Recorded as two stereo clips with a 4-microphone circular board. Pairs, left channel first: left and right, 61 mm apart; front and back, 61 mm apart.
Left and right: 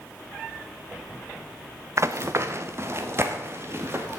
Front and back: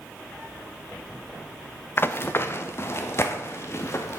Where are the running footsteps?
50° right, 0.9 m; by 4.2 s 40° right, 2 m.